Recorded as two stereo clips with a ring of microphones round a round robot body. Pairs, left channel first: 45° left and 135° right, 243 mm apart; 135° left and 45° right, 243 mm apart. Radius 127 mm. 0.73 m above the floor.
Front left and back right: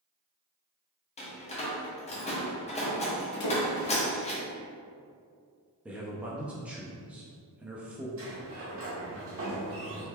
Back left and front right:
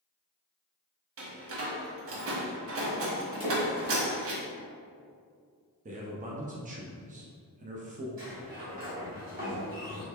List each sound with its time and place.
1.2 s a door slam: 20° right, 0.8 m
3.4 s a splash: 25° left, 1.4 m
5.8 s a man speaking: 55° right, 0.6 m
8.2 s a sliding door: 100° right, 1.4 m